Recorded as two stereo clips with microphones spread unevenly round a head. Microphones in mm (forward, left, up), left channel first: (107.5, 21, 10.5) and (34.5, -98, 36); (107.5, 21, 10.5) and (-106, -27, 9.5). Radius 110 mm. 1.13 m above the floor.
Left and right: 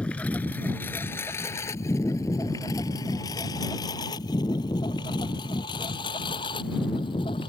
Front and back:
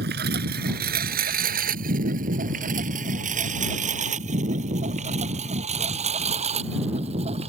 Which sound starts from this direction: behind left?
A lawn mower, at 0.0 s.